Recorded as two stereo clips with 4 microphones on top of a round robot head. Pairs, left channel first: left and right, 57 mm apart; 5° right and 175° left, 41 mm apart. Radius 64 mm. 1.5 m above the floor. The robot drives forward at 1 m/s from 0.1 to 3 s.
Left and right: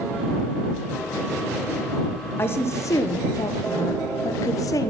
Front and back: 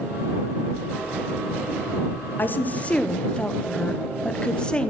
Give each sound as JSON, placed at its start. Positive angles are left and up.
{"t": 2.4, "sound": "a woman speaking", "azimuth_deg": 35, "distance_m": 1.2}